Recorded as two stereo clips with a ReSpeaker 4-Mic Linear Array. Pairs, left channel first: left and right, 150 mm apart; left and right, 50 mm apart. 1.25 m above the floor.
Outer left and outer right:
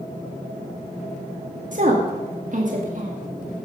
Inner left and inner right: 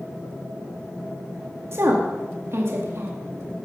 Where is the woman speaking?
55° right (ahead or behind), 1.8 m.